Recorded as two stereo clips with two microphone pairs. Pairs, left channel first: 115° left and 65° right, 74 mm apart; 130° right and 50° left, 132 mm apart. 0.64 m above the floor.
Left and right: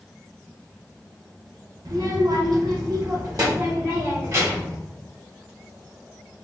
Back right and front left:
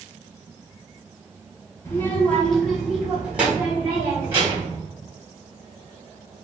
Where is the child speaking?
65° right, 0.9 m; by 4.8 s 20° right, 2.5 m.